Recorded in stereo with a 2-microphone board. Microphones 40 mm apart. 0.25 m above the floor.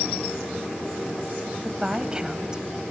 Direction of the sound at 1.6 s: 20° right (ahead or behind).